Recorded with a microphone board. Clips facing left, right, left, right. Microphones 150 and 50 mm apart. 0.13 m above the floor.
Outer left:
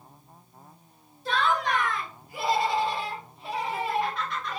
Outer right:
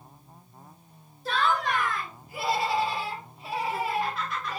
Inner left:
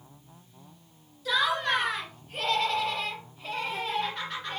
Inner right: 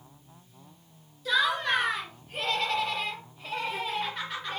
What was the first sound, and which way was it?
Laughter, centre (ahead or behind).